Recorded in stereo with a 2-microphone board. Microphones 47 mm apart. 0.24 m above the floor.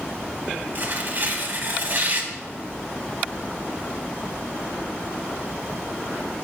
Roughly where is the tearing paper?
Right.